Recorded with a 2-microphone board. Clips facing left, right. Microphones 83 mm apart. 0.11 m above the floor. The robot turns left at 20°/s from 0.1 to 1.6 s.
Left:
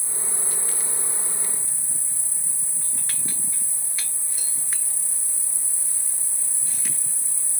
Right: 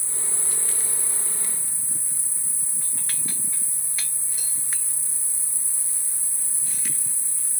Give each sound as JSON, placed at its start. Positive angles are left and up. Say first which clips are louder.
{"t": 0.0, "sound": "an insect", "louder": "left 2 dB", "azimuth_deg": 135, "distance_m": 1.8}